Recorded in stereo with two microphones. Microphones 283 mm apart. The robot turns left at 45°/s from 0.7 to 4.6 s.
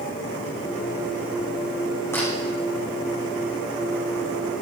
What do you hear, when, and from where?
2.1 s a camera shutter: 10° left (ahead or behind), 6 m; by 2.3 s centre (ahead or behind), 6 m